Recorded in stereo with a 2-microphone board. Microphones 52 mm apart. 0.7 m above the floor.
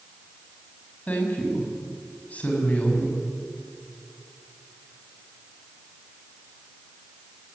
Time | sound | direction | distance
1.1 | a woman speaking | 30° left (ahead or behind) | 6 m